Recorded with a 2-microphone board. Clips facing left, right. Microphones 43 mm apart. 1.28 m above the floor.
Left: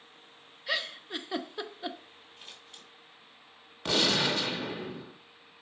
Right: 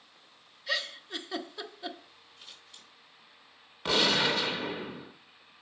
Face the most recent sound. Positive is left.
turn(degrees=-10)  # may be behind; listen again after turning